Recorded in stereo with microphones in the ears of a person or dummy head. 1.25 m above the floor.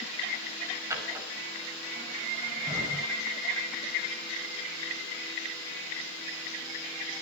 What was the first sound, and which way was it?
A drawer, 15° right (ahead or behind).